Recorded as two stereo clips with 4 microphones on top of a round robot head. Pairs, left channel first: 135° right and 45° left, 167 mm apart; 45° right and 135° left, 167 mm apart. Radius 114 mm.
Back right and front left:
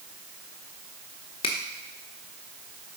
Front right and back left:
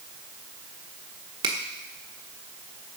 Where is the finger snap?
Straight behind, 1.0 m.